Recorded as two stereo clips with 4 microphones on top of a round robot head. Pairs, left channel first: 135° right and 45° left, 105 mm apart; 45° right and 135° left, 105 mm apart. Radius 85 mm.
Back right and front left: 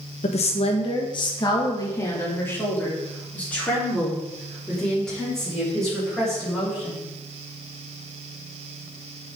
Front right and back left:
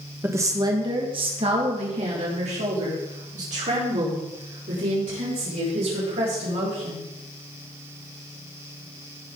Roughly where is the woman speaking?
Behind right.